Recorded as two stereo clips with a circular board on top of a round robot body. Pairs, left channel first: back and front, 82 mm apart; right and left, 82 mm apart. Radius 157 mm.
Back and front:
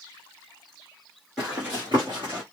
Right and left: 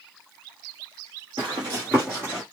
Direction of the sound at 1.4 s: 85° left.